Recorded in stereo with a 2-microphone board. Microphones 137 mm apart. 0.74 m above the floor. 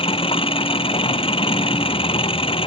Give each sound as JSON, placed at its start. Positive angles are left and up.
{"t": 0.0, "sound": "an engine running", "side_deg": 40}